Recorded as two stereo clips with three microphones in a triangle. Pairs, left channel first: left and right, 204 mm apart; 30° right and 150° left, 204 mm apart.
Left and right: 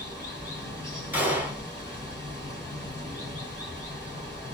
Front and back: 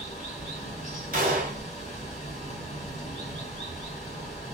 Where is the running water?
15° left, 1.9 m.